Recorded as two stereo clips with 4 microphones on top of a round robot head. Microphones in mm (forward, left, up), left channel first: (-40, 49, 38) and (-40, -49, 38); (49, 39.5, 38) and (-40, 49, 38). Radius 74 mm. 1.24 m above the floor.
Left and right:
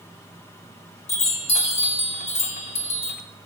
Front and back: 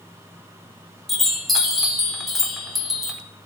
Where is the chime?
80° left, 4.5 m.